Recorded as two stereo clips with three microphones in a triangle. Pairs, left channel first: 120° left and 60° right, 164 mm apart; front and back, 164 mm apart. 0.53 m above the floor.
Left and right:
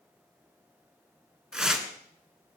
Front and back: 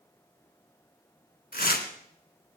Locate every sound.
1.5 s tearing paper: 25° left, 1.7 m